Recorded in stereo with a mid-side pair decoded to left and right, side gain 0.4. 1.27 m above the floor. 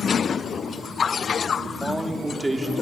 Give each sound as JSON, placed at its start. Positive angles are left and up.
{"t": 1.6, "sound": "a man speaking", "azimuth_deg": -15, "distance_m": 3.0}